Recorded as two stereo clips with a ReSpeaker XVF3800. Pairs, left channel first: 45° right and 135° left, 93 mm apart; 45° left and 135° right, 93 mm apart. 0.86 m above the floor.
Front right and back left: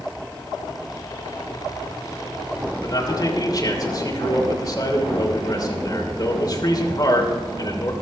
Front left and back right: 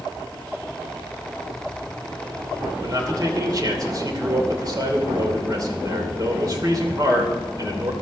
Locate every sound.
2.8 s a man speaking: 90° right, 3 m